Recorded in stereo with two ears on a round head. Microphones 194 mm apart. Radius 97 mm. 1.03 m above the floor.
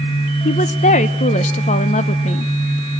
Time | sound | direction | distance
0.5 | a woman speaking | 30° left (ahead or behind) | 0.6 m